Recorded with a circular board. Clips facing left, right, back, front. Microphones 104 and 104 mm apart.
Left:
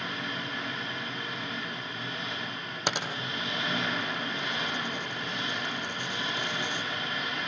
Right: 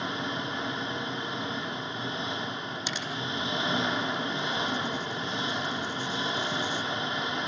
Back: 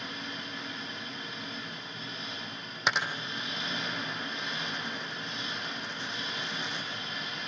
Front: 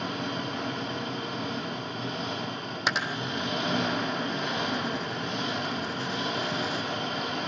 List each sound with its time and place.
0.0 s an engine running: 25° right, 1.0 m
2.9 s a dropped coin: 90° left, 2 m